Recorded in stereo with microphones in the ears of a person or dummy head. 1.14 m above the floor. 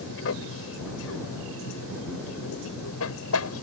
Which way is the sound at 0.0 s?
65° left (ahead or behind).